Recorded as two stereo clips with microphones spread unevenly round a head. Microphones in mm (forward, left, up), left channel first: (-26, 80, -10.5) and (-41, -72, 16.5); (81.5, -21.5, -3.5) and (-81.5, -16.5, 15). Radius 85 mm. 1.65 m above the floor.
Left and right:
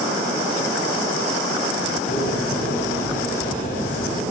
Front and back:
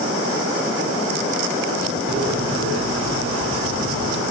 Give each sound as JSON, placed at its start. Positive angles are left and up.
{"t": 2.1, "sound": "a bird", "azimuth_deg": 120, "distance_m": 10.0}